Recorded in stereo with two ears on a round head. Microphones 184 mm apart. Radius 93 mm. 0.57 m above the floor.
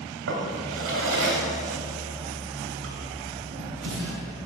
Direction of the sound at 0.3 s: 70° right (ahead or behind).